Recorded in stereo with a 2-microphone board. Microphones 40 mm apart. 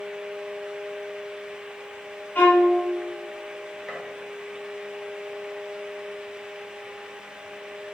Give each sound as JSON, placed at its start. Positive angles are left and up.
{"t": 2.4, "sound": "a violin", "side_deg": 40, "distance_m": 1.1}
{"t": 3.9, "sound": "a gunshot", "side_deg": -10, "distance_m": 1.0}